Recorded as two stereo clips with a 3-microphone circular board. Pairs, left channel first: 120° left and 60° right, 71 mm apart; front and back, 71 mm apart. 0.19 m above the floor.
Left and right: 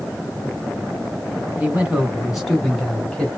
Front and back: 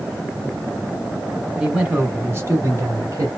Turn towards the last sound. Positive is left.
turn(degrees=-165)